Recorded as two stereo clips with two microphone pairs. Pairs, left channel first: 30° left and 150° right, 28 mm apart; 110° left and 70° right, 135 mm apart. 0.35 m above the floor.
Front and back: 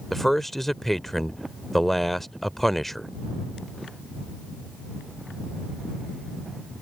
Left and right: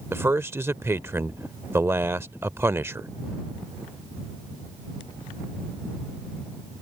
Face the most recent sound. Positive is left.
turn(degrees=-35)